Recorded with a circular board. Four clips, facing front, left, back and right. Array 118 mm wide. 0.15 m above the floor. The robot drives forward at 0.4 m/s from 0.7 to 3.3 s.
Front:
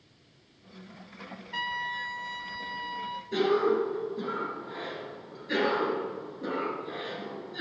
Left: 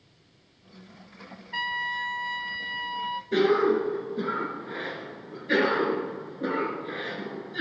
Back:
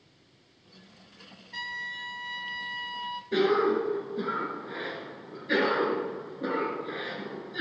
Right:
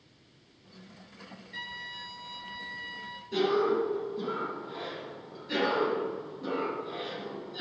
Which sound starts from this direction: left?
A trumpet, at 1.5 s.